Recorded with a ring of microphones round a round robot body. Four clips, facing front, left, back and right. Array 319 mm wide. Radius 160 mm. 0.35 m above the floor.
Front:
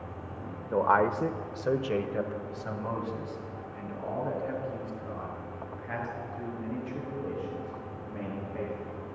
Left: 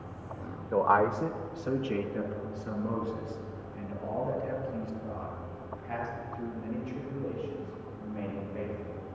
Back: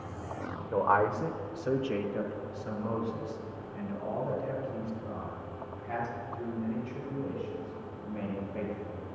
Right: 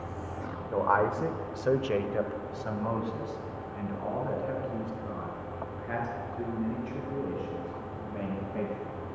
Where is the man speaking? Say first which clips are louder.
Left 1 dB, front 2 dB; 55° left, 1.1 m; by 9.0 s 75° right, 9 m.